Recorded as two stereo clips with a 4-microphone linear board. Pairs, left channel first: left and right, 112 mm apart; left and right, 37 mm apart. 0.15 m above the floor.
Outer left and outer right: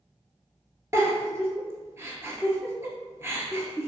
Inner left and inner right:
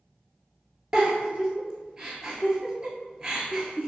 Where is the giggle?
25° right (ahead or behind), 0.6 m.